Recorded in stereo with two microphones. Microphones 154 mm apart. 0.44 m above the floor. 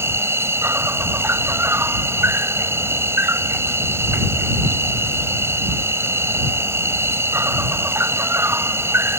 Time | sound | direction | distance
0.0 | an insect | 15° right (ahead or behind) | ?